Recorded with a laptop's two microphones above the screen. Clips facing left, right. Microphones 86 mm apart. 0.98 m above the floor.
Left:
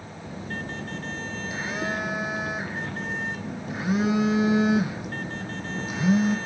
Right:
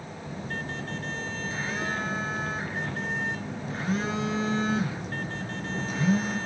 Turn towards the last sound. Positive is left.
turn(degrees=10)  # may be behind; listen again after turning